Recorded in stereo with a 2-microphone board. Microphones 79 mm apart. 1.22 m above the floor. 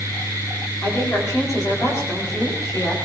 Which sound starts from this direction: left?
A woman speaking, at 0.8 s.